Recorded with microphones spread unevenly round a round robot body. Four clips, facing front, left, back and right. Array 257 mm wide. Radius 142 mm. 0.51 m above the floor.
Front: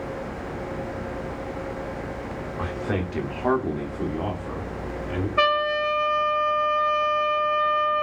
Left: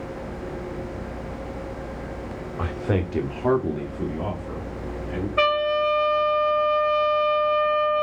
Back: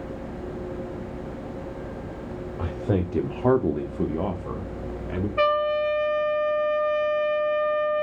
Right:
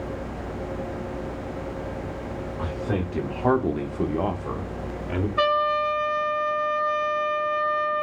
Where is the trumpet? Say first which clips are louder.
Left 1 dB, back 1 dB; 35° left, 2.5 m.